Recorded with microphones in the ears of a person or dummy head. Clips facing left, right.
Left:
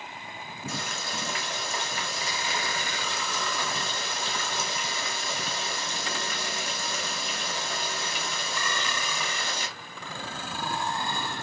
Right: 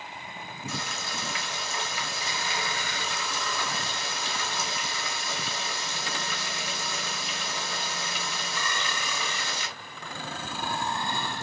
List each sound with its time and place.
0.7 s frying: 40° left (ahead or behind), 1.1 m